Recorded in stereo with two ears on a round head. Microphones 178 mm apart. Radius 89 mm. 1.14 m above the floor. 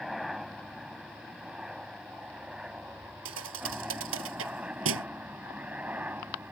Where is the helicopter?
Centre (ahead or behind); by 6.5 s 10° right (ahead or behind).